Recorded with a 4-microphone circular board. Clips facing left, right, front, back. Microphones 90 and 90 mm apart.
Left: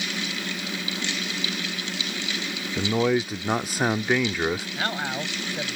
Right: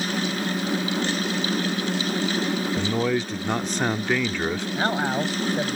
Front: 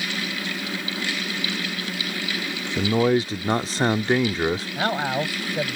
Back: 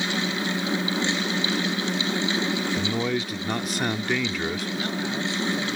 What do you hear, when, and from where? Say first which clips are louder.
2.8 s a man speaking: left 5 dB, front 6 dB; 15° left
4.8 s a man speaking: right 5 dB, front 4 dB; 20° right